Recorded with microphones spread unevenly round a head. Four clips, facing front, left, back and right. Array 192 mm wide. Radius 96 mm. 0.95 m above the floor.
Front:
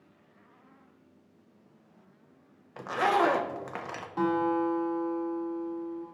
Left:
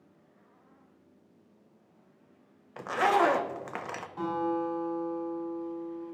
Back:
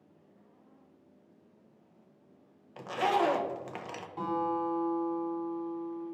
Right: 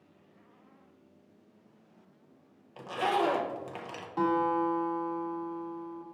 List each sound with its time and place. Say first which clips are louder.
2.8 s a zipper: left 4 dB, front 3 dB; 55° left, 0.5 m
4.2 s a guitar: right 3 dB, front 5 dB; 40° right, 2.5 m